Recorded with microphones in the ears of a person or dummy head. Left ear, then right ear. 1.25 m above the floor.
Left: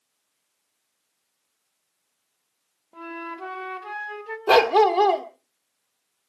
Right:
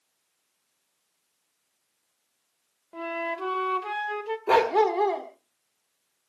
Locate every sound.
2.9 s a flute: 25° right (ahead or behind), 1.9 m
4.5 s a dog barking: 30° left (ahead or behind), 1.3 m